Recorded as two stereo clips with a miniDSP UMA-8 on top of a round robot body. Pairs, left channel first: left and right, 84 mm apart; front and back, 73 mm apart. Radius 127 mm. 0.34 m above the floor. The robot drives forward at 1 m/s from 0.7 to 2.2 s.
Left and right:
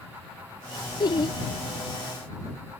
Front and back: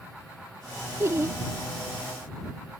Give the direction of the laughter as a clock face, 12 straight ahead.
8 o'clock.